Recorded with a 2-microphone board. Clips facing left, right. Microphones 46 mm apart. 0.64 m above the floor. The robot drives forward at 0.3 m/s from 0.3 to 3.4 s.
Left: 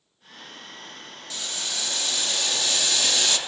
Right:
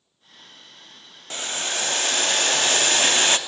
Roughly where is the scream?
I don't hear a scream.